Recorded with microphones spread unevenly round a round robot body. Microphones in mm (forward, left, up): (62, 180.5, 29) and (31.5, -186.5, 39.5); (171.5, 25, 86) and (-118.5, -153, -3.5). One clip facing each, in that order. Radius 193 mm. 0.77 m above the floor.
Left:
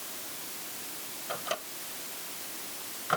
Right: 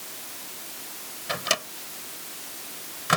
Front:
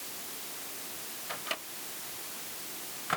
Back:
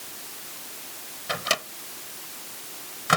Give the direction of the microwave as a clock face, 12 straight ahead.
5 o'clock.